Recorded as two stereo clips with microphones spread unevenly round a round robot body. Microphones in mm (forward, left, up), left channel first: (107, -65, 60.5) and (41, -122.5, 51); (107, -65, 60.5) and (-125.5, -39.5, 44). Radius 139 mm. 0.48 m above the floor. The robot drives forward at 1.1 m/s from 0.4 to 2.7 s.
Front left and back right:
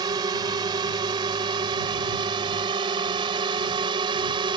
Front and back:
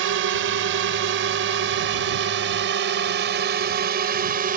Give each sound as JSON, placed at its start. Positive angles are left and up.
{"t": 0.0, "sound": "a drone", "azimuth_deg": -170}